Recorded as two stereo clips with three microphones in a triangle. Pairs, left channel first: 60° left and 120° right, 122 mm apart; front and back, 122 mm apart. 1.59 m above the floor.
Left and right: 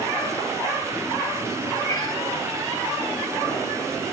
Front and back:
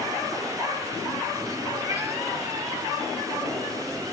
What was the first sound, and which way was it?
A cat meowing, 115° left.